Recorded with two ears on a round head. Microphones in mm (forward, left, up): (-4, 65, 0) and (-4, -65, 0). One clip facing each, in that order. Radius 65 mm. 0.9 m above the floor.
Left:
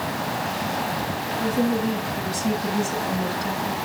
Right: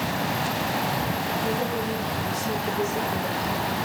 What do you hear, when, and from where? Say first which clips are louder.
1.4 s a woman speaking: left 4 dB; 55° left (ahead or behind), 8 m; by 3.8 s 60° left (ahead or behind), 7 m